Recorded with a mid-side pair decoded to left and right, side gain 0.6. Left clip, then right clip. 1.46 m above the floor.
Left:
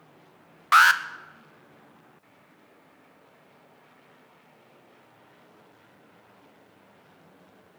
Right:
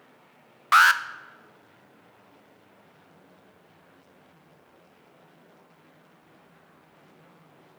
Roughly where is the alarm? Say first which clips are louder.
Even; ahead.